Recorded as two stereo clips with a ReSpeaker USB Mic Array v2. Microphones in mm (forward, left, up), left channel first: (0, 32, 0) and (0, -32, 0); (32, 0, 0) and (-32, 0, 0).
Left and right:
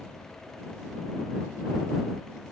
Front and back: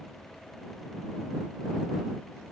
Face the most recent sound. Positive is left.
No sound to turn to.